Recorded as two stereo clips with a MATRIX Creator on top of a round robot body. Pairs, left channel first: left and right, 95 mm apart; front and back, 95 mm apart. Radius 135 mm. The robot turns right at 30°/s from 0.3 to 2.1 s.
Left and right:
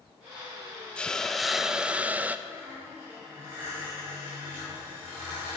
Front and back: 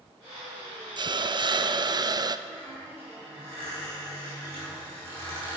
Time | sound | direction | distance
1.0 | a hiss | 170° left | 0.5 m
2.5 | a squeak | 155° right | 4.5 m